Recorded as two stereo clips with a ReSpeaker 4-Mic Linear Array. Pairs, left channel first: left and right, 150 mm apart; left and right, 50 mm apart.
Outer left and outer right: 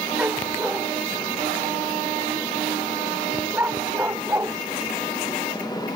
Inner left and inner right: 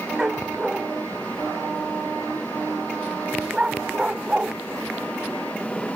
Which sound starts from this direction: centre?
A dog barking, at 0.2 s.